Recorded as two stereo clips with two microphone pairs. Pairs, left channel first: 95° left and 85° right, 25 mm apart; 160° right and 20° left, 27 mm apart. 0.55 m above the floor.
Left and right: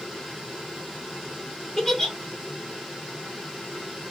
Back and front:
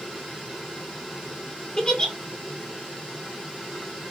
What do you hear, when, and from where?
1.8 s a giggle: 150° left, 1.4 m